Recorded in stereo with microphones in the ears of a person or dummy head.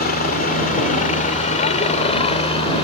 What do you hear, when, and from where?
0.0 s a helicopter: 35° left (ahead or behind); by 2.9 s 20° left (ahead or behind)